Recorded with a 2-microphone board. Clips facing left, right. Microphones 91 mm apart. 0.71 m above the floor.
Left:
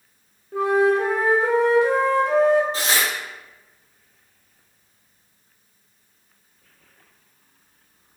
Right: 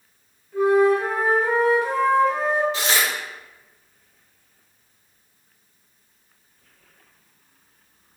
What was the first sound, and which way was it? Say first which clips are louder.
A flute: right 1 dB; 85° left.